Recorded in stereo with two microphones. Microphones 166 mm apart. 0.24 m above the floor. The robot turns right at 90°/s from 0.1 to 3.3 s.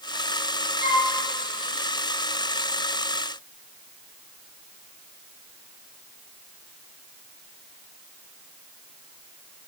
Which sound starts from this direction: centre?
A flute, at 0.8 s.